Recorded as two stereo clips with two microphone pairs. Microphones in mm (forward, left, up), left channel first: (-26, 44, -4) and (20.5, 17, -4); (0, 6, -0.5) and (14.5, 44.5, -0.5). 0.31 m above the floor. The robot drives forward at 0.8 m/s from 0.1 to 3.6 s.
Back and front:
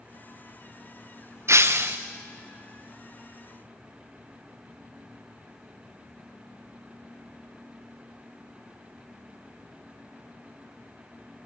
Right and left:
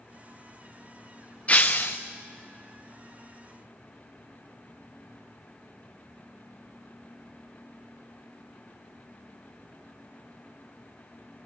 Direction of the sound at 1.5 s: 55° right.